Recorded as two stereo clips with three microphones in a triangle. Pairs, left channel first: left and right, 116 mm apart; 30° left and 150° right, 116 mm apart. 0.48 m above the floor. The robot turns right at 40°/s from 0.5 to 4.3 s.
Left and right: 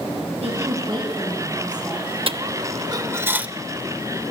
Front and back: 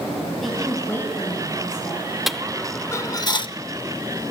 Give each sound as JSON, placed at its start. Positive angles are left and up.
{"t": 0.4, "sound": "a woman speaking", "azimuth_deg": -60, "distance_m": 7.5}
{"t": 2.3, "sound": "a dropped coin", "azimuth_deg": -65, "distance_m": 0.6}